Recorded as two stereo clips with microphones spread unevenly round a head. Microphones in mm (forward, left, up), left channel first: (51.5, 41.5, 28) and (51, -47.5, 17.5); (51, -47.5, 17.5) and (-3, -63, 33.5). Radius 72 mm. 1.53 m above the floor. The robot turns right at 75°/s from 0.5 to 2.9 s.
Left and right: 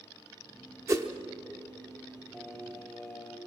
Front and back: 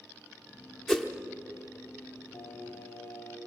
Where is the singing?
40° left, 1.5 m; by 3.4 s 80° left, 1.5 m.